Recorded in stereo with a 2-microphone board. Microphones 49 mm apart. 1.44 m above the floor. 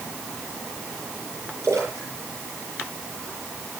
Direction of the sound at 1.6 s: 75° right (ahead or behind).